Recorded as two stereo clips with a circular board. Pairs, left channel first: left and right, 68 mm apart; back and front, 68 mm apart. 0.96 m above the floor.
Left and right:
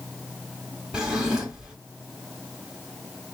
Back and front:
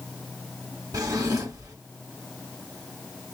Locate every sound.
0.9 s a drawer: 15° right, 1.3 m